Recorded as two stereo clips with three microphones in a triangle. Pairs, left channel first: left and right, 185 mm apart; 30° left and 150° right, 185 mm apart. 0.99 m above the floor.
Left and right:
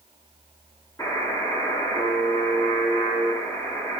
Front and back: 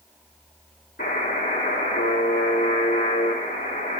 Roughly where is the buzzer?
Ahead.